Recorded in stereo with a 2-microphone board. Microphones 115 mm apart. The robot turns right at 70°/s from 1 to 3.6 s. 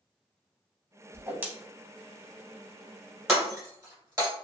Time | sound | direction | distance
1.1 | a whoosh | 25° right (ahead or behind) | 0.6 m
3.3 | breaking glass | 5° right (ahead or behind) | 1.8 m